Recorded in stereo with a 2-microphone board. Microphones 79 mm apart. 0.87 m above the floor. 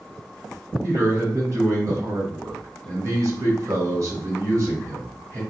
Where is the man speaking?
55° right (ahead or behind), 1.6 m.